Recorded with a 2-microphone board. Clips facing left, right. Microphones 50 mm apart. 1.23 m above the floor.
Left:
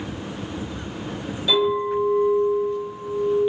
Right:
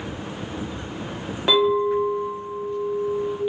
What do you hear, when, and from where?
1.5 s a clink: 55° right (ahead or behind), 0.8 m